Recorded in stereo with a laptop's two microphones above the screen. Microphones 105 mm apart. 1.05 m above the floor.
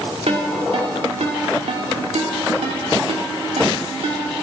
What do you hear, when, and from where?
0.3 s a ringtone: 85° right, 2.0 m